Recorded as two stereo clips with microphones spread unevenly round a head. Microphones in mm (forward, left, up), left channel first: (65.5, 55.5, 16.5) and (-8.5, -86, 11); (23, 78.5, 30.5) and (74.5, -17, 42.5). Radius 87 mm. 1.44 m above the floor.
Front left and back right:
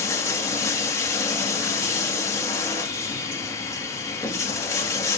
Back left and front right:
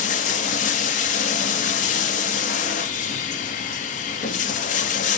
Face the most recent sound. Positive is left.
turn(degrees=135)